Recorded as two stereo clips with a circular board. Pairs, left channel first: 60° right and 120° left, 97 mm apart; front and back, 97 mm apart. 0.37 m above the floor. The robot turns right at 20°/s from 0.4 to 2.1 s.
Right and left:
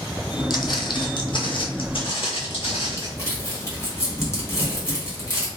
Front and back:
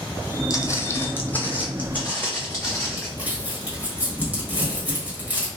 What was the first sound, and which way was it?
Footsteps, 40° right.